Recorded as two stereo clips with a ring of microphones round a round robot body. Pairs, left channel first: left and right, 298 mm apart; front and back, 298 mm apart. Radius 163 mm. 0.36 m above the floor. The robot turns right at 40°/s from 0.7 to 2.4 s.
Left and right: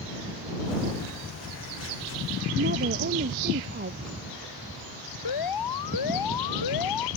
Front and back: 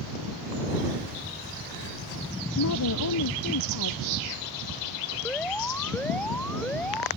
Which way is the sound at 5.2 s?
85° left.